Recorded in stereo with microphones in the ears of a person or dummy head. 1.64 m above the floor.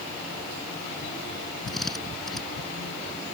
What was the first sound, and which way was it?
A drill, 5° left (ahead or behind).